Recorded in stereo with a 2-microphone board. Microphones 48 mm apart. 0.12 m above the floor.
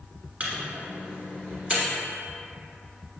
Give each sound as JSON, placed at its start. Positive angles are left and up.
{"t": 0.4, "sound": "a microwave", "side_deg": -25, "distance_m": 1.0}